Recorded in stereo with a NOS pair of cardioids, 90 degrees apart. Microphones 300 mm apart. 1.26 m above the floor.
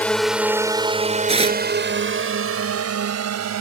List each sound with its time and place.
0.0 s a drone: 5° left; by 3.6 s 65° right
1.3 s tearing paper: 20° right